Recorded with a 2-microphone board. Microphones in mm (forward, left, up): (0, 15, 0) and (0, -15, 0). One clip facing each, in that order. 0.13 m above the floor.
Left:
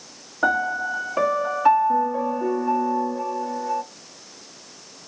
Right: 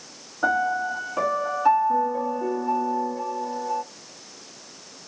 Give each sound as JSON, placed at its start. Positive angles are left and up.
{"t": 0.4, "sound": "a piano", "side_deg": 20, "distance_m": 0.7}